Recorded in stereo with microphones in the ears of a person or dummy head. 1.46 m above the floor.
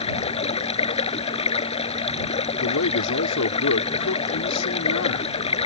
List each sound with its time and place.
0.0 s running water: 35° left (ahead or behind)
2.6 s a man speaking: 85° left